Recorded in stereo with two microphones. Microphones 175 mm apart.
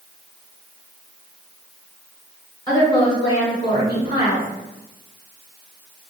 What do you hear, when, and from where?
2.7 s a woman speaking: 20° left (ahead or behind), 1.3 m; by 4.5 s 30° left (ahead or behind), 1.7 m